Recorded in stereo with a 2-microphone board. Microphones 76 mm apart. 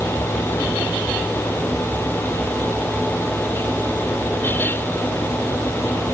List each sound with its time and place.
Only background noise.